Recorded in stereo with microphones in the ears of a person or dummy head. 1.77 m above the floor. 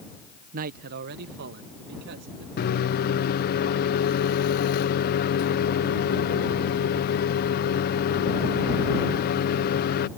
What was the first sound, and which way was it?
A man speaking, 45° right (ahead or behind).